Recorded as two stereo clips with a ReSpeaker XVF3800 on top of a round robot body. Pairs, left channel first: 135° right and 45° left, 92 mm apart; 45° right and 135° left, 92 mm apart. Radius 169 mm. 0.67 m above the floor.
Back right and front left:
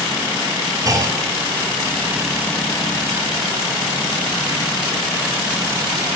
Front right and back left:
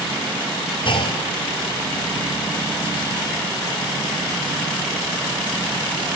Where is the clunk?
15° right, 1.9 m.